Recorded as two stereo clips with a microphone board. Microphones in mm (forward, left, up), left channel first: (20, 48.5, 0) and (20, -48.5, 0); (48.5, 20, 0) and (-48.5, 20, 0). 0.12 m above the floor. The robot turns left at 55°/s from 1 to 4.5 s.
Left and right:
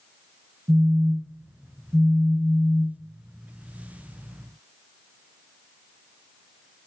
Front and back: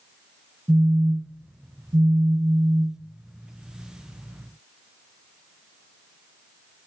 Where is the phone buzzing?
110° right, 0.5 m; by 3.0 s 135° left, 0.5 m.